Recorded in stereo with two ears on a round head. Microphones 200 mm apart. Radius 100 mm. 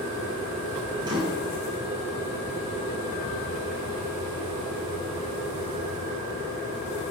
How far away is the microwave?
About 6.5 m.